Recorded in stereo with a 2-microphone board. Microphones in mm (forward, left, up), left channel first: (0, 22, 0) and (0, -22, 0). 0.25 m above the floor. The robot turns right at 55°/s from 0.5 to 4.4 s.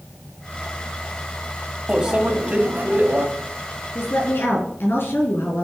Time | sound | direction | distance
1.9 | a microwave | 170° right | 1.7 m
4.0 | a woman speaking | 75° left (ahead or behind) | 4.5 m